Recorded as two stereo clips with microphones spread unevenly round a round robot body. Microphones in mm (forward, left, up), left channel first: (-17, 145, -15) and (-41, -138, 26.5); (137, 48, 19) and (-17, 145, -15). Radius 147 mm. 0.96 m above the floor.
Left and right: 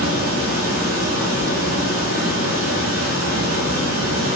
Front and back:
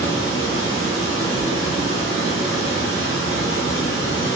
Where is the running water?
90° right, 2 m.